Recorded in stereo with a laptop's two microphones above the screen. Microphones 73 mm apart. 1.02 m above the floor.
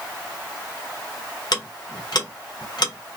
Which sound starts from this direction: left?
Ticking, at 1.5 s.